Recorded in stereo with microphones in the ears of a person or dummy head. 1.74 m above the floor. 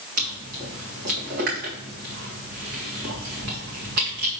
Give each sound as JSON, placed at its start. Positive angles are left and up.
{"t": 0.2, "sound": "chewing", "side_deg": -50, "distance_m": 1.7}